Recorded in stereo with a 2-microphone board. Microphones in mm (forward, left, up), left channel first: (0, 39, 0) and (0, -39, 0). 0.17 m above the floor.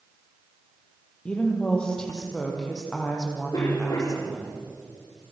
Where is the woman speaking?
15° left (ahead or behind), 6 m; by 4.5 s 5° left (ahead or behind), 8 m.